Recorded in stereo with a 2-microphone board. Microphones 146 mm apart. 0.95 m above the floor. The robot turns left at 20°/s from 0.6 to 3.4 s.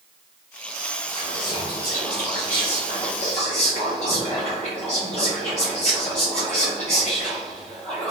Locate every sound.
1.1 s whispering: 130° left, 1.1 m; by 8.1 s 85° left, 1.1 m